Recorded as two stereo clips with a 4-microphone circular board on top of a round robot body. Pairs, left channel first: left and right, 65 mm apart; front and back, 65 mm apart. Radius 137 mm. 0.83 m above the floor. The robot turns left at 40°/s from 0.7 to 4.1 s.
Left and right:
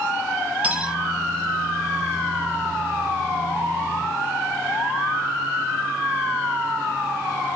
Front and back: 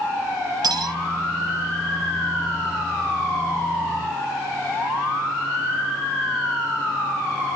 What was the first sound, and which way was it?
Cutlery clinking, 160° right.